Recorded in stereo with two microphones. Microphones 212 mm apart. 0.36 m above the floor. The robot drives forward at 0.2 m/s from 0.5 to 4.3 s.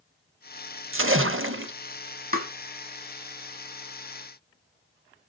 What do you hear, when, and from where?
0.9 s a splash: 75° right (ahead or behind), 0.5 m; by 1.7 s 70° right (ahead or behind), 0.5 m
2.3 s tapping: 45° right (ahead or behind), 1.0 m